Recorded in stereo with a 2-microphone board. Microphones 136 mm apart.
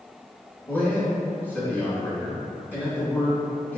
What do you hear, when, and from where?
0.7 s a man speaking: 15° left (ahead or behind), 2.0 m